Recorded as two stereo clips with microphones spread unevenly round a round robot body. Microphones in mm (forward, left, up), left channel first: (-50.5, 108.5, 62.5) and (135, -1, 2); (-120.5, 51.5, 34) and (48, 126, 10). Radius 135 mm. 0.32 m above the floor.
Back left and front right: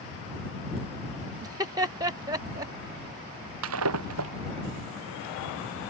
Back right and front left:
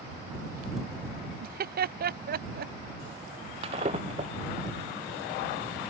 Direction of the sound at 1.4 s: 30° left.